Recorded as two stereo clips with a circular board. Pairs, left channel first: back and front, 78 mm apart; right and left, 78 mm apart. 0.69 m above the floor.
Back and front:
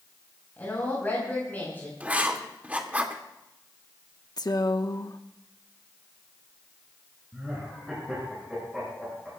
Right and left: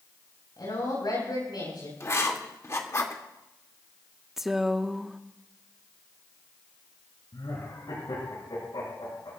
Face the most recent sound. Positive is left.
turn(degrees=-85)